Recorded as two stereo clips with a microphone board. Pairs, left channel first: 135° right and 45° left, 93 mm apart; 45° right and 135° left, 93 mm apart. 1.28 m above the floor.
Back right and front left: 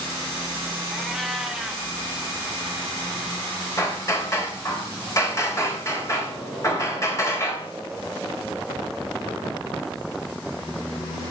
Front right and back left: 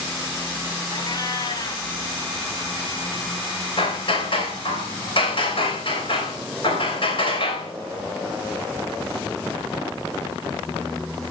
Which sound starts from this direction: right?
Hammering, at 3.8 s.